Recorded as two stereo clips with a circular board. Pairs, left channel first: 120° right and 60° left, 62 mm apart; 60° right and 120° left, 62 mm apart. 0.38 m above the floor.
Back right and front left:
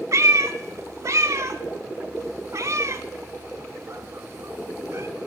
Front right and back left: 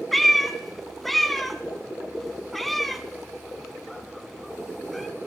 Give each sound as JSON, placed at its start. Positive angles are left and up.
{"t": 0.1, "sound": "a cat meowing", "azimuth_deg": 25, "distance_m": 0.7}